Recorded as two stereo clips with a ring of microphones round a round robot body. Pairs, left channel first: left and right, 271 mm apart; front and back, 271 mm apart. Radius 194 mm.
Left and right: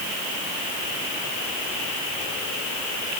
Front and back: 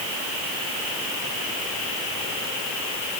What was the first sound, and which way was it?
Only background noise.